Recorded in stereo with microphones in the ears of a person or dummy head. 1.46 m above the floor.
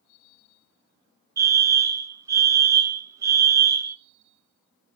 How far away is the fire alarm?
About 0.6 m.